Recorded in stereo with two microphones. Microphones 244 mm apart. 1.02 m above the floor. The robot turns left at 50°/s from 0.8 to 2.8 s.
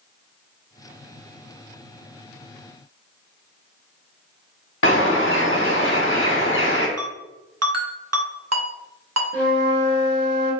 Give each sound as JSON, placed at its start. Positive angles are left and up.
{"t": 4.8, "sound": "a bird", "side_deg": 50, "distance_m": 0.9}
{"t": 7.0, "sound": "a ringtone", "side_deg": -85, "distance_m": 0.8}
{"t": 9.3, "sound": "a flute", "side_deg": 5, "distance_m": 2.0}